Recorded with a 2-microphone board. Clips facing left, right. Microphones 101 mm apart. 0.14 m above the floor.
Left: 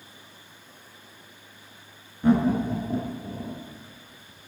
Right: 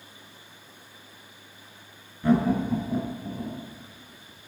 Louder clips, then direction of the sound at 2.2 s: Left 1 dB; 20° left (ahead or behind).